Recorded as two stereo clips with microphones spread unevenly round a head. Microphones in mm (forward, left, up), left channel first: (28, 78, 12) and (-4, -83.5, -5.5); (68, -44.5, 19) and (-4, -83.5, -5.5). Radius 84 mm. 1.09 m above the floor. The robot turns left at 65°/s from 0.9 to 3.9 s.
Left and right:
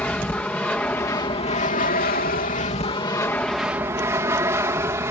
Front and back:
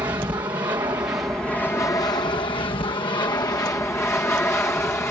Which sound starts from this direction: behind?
An aircraft, at 0.0 s.